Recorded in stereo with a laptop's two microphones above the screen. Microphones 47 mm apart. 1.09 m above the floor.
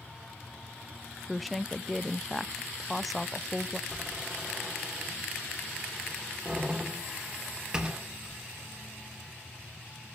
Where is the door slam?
20° right (ahead or behind), 2.5 m.